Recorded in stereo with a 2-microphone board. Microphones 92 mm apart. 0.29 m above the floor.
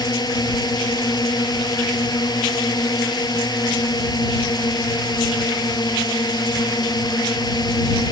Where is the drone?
50° left (ahead or behind).